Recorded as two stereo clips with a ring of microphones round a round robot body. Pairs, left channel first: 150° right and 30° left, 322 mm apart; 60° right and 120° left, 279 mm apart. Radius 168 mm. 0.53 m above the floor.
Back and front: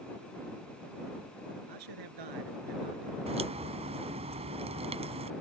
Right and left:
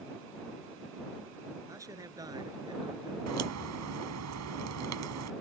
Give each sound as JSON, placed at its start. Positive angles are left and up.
{"t": 1.7, "sound": "a man speaking", "azimuth_deg": 40}
{"t": 3.3, "sound": "a crack", "azimuth_deg": 100}